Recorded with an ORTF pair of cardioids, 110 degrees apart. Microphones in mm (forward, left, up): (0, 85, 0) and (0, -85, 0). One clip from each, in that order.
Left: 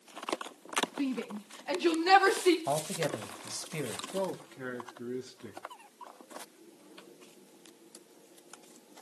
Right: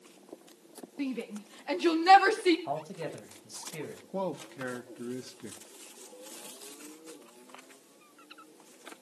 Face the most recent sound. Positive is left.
turn(degrees=-25)